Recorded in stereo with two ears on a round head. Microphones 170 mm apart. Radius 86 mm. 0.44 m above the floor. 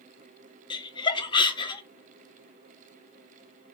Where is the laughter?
25° left (ahead or behind), 0.8 m.